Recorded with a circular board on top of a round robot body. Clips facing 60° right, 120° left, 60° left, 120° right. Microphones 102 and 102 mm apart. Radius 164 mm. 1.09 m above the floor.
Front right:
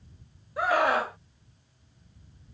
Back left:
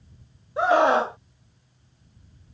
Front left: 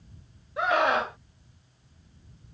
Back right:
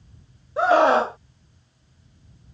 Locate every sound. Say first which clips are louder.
0.6 s a scream: back left 6 dB, back right 8 dB; 175° right